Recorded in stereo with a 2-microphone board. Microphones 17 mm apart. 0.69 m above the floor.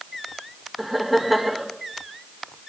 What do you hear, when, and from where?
0.8 s laughter: 15° right (ahead or behind), 2 m